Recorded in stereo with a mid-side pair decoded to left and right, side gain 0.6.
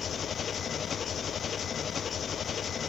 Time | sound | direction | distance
0.0 | an engine running | 40° left | 0.8 m